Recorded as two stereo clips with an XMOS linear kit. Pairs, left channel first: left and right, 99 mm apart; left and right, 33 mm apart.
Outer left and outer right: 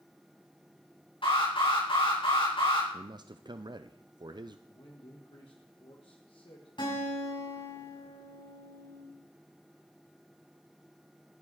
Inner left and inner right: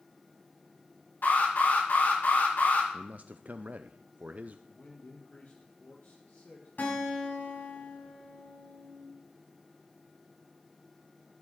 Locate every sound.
1.2 s an alarm: 65° left (ahead or behind), 6 m
2.9 s a man speaking: 50° right (ahead or behind), 0.5 m
4.7 s a man speaking: 65° left (ahead or behind), 1.7 m
6.8 s a guitar: 55° left (ahead or behind), 6 m